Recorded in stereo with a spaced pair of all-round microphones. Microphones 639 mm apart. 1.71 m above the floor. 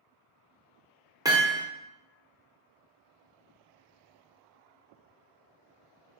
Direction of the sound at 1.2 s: 5° right (ahead or behind).